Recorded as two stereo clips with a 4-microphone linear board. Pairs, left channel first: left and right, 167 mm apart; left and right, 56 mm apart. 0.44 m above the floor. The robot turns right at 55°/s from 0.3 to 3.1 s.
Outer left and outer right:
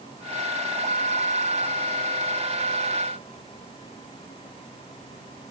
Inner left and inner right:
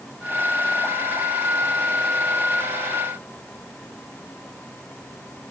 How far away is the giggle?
I don't hear a giggle.